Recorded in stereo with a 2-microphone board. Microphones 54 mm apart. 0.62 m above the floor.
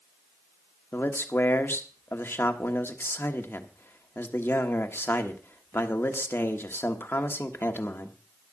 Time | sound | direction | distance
0.9 | a man speaking | 45° left (ahead or behind) | 1.3 m